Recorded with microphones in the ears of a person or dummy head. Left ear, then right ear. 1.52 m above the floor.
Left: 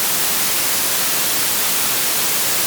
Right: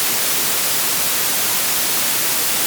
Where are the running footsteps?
No running footsteps in this recording.